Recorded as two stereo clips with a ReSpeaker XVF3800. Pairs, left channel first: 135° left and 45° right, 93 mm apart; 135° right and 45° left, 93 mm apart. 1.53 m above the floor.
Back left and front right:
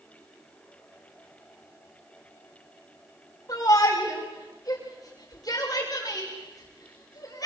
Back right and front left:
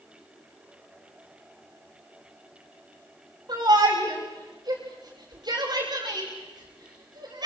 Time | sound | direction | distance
3.5 | a shout | 85° left | 6 m